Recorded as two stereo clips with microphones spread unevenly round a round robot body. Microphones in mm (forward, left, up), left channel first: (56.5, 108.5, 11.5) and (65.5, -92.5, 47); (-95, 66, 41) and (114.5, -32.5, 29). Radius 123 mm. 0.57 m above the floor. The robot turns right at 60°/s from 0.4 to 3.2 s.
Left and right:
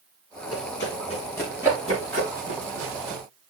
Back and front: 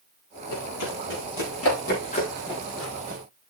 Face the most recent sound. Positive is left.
turn(degrees=-75)